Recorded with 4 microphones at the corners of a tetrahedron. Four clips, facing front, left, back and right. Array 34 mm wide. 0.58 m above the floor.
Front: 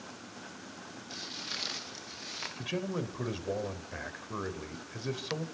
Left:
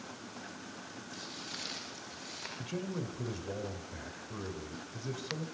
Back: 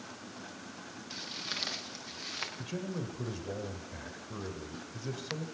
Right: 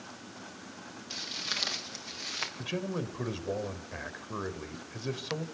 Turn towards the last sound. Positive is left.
turn(degrees=-45)